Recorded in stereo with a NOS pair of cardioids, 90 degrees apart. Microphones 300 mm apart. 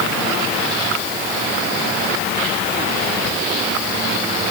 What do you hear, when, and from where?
Only background noise.